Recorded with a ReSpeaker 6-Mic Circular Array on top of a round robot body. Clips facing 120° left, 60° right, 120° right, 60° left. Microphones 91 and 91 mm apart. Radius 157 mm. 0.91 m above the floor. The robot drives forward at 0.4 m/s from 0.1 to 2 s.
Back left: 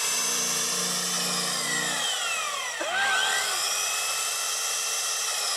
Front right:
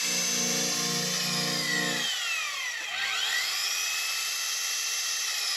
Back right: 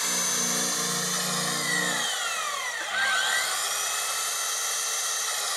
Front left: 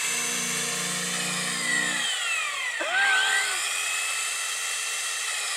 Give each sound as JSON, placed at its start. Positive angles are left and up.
{"t": 0.0, "sound": "an engine running", "azimuth_deg": 170}
{"t": 2.8, "sound": "a gasp", "azimuth_deg": 110}